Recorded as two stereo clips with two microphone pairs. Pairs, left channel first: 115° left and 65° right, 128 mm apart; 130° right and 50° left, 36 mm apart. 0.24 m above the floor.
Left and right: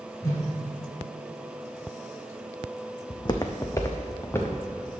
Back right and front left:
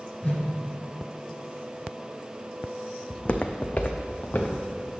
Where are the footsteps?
165° left, 0.6 m; by 4.6 s 170° right, 1.6 m.